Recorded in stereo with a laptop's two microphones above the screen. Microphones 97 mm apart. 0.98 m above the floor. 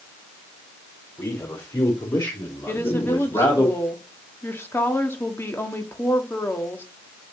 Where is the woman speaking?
25° left (ahead or behind), 1.7 m.